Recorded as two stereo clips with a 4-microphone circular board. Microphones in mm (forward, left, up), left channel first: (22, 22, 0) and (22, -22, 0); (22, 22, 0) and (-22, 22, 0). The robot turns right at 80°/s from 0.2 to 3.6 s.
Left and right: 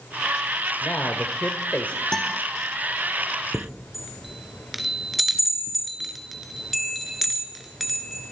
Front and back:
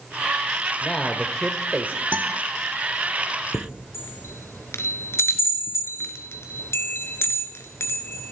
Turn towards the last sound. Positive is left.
turn(degrees=0)